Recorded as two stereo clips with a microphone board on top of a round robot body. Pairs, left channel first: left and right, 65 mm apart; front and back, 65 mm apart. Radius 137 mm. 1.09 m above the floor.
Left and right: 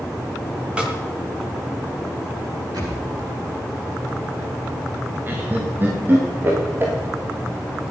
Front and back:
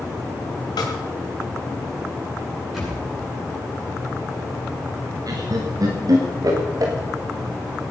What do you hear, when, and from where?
0.8 s a snare drum: 15° right, 3 m
2.7 s a thud: 90° right, 7.5 m
5.3 s laughter: 150° right, 1.7 m